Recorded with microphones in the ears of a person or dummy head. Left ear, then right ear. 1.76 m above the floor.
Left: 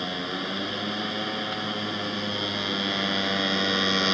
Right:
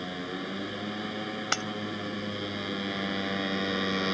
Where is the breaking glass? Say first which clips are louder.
Right 2 dB; 60° right (ahead or behind).